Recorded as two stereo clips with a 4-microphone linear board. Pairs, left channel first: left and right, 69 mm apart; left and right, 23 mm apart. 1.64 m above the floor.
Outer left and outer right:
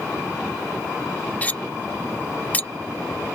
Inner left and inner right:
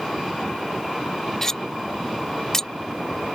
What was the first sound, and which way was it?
Cutlery clinking, 25° left (ahead or behind).